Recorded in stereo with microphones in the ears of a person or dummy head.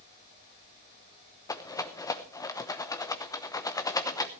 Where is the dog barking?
No dog barking in this recording.